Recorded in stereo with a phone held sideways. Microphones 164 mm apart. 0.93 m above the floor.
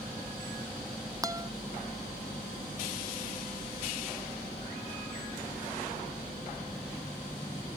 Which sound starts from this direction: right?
A guitar, at 1.2 s.